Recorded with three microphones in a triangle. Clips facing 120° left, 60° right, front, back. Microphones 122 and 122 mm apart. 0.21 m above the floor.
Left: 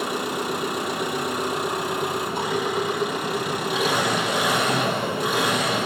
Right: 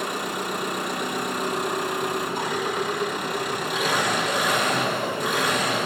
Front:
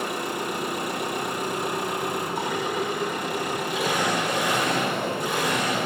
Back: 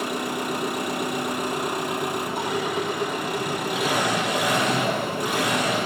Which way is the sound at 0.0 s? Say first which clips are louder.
Left 2 dB, back 2 dB; 160° right.